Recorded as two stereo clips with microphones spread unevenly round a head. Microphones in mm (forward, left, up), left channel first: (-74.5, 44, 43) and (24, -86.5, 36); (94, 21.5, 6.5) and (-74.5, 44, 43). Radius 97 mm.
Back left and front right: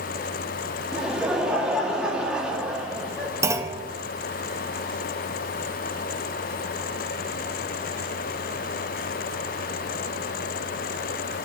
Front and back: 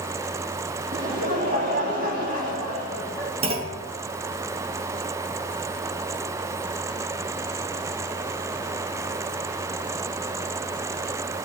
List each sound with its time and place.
0.9 s laughter: 140° right, 2 m
3.4 s a clunk: 125° right, 1.5 m